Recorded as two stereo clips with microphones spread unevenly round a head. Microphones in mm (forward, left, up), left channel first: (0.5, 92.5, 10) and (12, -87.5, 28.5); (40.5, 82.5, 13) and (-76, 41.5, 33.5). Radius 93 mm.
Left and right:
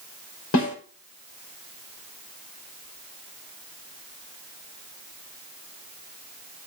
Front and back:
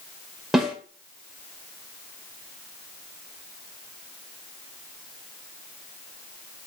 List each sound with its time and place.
0.5 s a snare drum: 110° left, 4 m